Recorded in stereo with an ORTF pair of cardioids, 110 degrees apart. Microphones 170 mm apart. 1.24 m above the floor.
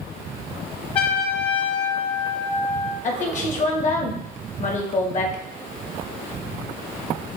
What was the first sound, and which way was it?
A trumpet, 30° left.